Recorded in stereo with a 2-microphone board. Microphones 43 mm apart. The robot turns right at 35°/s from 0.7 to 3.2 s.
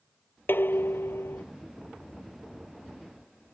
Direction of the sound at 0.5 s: 55° left (ahead or behind).